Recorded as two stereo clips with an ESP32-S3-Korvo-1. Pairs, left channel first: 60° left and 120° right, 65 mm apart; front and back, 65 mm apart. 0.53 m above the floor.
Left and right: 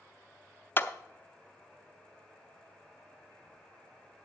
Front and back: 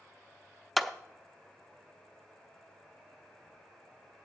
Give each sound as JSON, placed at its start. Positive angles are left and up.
{"t": 0.8, "sound": "a clap", "azimuth_deg": 90, "distance_m": 0.6}